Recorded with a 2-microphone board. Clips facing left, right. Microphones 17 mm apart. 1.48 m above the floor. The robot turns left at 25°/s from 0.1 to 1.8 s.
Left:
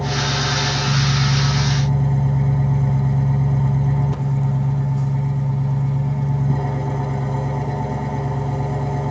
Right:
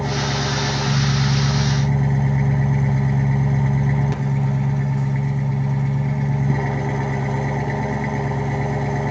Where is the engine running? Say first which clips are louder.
Left 1 dB; 40° right, 5.5 m; by 9.1 s 85° right, 5.5 m.